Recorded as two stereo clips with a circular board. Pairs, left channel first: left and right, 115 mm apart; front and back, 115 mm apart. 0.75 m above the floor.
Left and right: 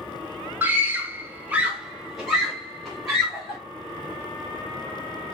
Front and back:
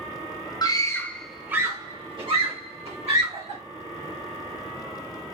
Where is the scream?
25° right, 0.9 m; by 3.6 s straight behind, 2 m.